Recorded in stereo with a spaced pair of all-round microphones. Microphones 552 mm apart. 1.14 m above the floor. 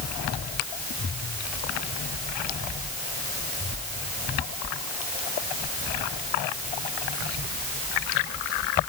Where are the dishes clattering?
I don't hear dishes clattering.